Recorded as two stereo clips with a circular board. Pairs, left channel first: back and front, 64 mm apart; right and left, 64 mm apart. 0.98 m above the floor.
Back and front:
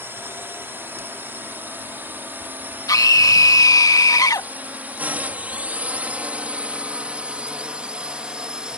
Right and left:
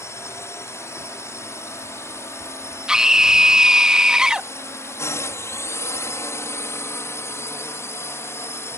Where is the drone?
50° right; by 8.8 s 70° right.